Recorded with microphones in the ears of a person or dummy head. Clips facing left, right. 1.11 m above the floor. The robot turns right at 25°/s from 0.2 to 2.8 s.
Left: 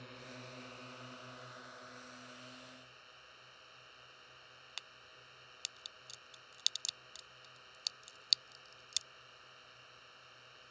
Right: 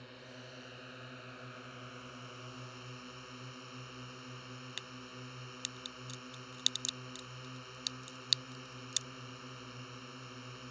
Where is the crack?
15° right (ahead or behind).